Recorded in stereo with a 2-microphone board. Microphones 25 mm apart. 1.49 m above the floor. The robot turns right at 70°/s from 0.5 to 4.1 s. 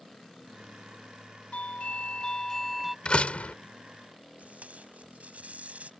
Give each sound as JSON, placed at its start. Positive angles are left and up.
{"t": 1.5, "sound": "a doorbell", "azimuth_deg": 90}
{"t": 3.0, "sound": "a door slam", "azimuth_deg": 45}
{"t": 4.4, "sound": "tape being pulled", "side_deg": -85}